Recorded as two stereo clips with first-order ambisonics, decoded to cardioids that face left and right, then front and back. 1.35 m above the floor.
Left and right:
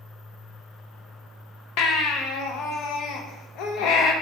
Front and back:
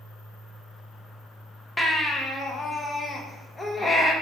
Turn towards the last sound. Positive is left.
turn(degrees=80)